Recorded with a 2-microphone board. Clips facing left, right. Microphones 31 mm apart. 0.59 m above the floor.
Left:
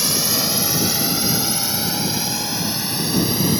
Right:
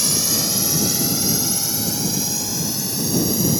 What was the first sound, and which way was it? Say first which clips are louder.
A drone: left 1 dB; 15° left (ahead or behind).